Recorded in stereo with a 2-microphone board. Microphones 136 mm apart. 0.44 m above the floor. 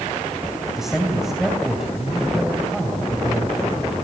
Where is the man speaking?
Centre (ahead or behind), 3 m.